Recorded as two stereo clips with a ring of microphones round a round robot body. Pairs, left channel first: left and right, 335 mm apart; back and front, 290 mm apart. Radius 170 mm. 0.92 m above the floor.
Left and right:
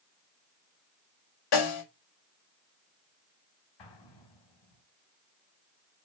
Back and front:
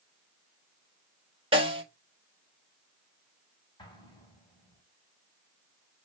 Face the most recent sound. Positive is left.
turn(degrees=105)